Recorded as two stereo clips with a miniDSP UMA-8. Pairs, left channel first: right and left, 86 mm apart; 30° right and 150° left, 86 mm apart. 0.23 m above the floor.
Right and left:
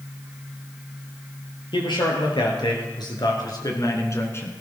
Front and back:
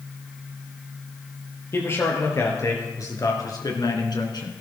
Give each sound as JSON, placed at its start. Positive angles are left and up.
{"t": 1.7, "sound": "a man speaking", "azimuth_deg": -90, "distance_m": 4.5}